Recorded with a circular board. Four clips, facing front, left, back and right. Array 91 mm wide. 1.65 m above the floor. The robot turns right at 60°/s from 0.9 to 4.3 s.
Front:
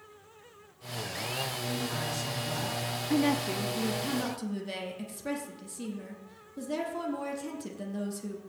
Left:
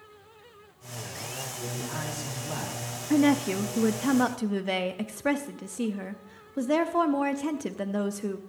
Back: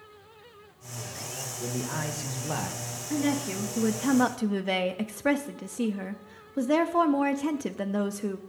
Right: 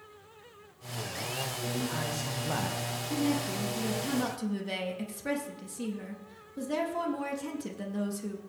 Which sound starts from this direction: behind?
A man speaking, at 1.6 s.